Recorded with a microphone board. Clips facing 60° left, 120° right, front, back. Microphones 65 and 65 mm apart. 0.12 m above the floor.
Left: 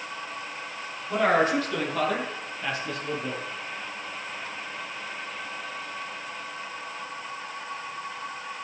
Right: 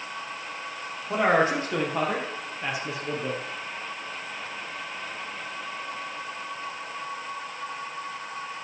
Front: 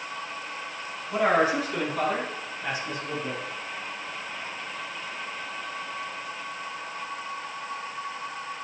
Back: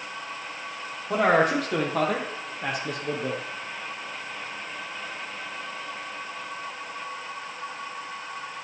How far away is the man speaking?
About 5 m.